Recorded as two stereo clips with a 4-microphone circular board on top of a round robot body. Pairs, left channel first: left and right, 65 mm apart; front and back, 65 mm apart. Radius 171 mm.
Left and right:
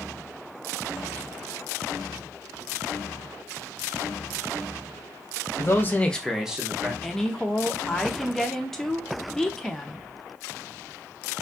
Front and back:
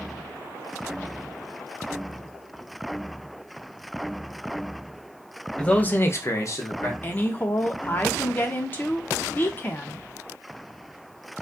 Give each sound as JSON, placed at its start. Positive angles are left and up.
{"t": 5.6, "sound": "a man speaking", "azimuth_deg": 70, "distance_m": 0.9}
{"t": 7.0, "sound": "a woman speaking", "azimuth_deg": 15, "distance_m": 0.8}